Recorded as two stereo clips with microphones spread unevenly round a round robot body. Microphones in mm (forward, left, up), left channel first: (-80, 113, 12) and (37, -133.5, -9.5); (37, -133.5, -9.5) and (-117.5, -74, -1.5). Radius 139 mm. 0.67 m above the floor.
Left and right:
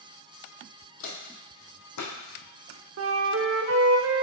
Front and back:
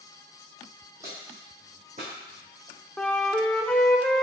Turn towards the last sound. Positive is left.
turn(degrees=-105)